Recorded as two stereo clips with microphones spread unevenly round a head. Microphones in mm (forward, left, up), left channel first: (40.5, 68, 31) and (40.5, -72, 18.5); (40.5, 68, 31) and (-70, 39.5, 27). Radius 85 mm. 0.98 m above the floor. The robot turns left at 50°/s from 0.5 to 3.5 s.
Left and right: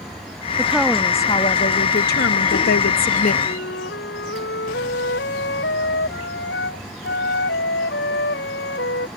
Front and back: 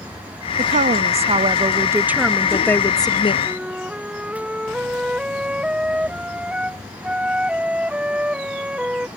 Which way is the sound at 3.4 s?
115° left.